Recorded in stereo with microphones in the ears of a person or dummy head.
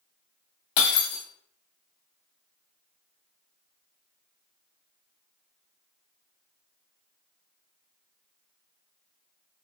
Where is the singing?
I don't hear singing.